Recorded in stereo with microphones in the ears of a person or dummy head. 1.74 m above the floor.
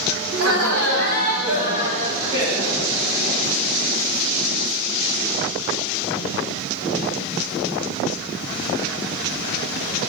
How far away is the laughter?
About 2.0 m.